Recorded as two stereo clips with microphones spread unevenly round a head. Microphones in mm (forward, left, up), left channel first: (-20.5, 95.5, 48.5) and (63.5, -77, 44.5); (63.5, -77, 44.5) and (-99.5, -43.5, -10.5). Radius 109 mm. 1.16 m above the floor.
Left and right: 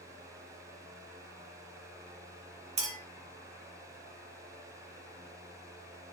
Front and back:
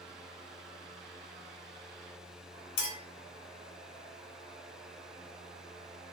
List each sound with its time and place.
2.8 s a clink: 5° right, 0.7 m